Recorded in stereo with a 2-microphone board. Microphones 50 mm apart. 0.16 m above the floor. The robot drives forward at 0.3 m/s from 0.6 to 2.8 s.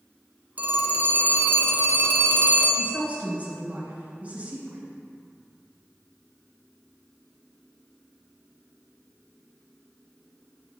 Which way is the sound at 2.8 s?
30° right (ahead or behind).